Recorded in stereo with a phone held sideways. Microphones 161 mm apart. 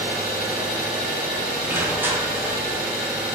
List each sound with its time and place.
0.0 s an engine running: 5° right (ahead or behind), 1.4 m
1.7 s crushing: 10° right (ahead or behind), 0.6 m